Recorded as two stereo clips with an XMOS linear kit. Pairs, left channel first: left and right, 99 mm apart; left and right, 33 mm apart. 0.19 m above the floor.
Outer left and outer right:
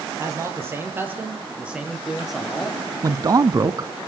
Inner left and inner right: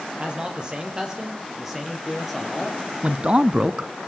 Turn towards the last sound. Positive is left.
turn(degrees=-35)  # may be behind; listen again after turning